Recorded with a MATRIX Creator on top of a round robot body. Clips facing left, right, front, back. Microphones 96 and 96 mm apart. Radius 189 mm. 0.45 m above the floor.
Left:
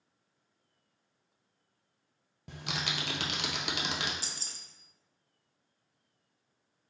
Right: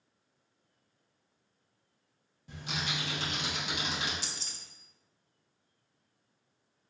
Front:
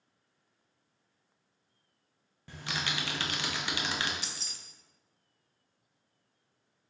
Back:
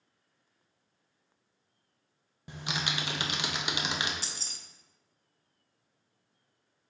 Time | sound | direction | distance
2.5 | typing on a keyboard | 110° left | 0.6 m
4.2 | keys jangling | 130° left | 0.6 m